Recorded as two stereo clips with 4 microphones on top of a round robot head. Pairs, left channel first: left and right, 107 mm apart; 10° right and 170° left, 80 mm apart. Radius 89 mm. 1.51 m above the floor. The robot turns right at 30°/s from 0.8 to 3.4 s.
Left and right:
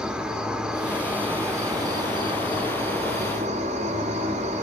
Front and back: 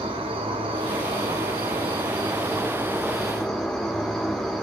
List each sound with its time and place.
0.0 s an insect: 170° right, 1.3 m; by 4.6 s 95° right, 1.3 m